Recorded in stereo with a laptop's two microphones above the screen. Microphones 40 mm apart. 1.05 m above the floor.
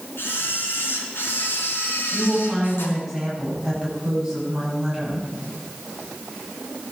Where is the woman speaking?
5° right (ahead or behind), 9 m.